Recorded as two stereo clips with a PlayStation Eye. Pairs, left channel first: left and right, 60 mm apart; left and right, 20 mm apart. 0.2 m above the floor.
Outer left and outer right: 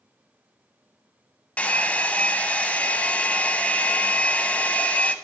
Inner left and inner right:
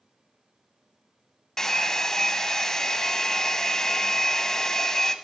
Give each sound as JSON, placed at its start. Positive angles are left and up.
{"t": 1.6, "sound": "a hair dryer", "side_deg": 25, "distance_m": 0.7}